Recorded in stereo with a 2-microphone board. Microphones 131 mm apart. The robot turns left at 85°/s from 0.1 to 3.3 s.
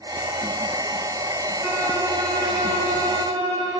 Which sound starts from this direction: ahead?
A violin, at 1.6 s.